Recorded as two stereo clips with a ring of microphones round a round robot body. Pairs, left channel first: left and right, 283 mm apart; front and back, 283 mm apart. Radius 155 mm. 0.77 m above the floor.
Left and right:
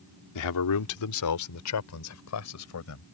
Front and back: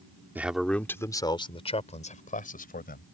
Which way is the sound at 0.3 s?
95° left.